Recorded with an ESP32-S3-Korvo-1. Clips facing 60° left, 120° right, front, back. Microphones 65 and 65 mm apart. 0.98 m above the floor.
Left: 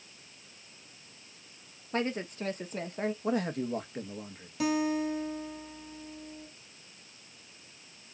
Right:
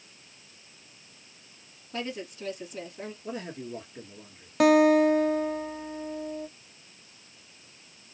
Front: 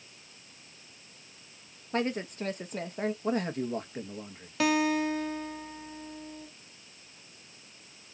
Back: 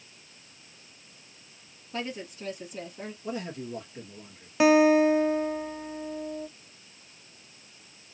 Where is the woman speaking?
25° left, 1.2 m.